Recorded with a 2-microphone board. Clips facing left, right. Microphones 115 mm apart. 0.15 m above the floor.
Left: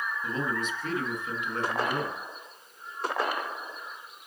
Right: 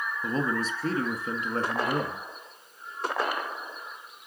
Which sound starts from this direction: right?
A man speaking, at 0.2 s.